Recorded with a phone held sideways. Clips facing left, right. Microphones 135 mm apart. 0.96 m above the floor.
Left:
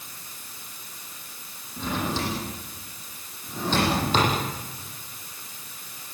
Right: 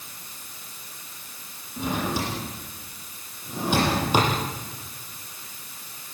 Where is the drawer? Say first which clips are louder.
Right 1 dB; 10° right (ahead or behind), 9.5 m.